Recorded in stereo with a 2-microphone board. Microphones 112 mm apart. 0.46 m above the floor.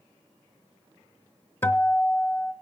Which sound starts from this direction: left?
A guitar, at 1.6 s.